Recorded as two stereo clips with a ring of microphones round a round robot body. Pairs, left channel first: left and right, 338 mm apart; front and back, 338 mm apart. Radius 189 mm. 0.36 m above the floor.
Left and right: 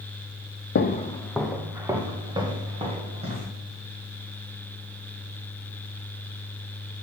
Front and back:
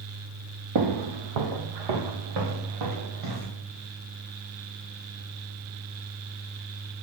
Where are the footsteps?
145° left, 0.7 m; by 3.5 s 160° right, 3.5 m.